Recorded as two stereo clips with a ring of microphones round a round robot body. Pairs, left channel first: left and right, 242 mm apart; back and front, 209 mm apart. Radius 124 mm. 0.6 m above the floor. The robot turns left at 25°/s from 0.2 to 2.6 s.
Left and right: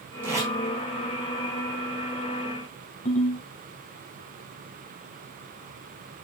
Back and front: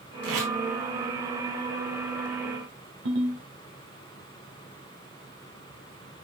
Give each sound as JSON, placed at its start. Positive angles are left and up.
{"t": 0.2, "sound": "tape being pulled", "azimuth_deg": -10, "distance_m": 4.5}
{"t": 3.0, "sound": "a ringtone", "azimuth_deg": 30, "distance_m": 2.0}